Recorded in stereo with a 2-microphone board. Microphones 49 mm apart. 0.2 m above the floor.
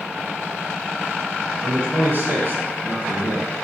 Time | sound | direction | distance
1.6 | a man speaking | 40° right (ahead or behind) | 3 m